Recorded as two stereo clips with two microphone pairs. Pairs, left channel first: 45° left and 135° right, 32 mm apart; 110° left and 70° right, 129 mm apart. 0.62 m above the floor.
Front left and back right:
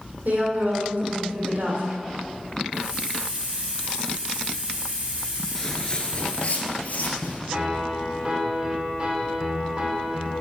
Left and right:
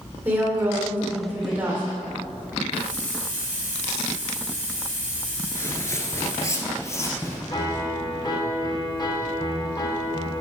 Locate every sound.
0.2 s a woman speaking: 140° right, 1.6 m
2.7 s a hiss: 175° right, 1.9 m
5.5 s footsteps: 100° left, 0.6 m; by 7.4 s 45° left, 1.2 m
7.5 s a piano: 170° left, 0.8 m